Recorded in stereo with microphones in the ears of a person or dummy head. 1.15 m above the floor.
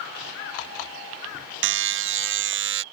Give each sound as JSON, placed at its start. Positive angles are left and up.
{"t": 1.6, "sound": "a buzzer", "side_deg": -60}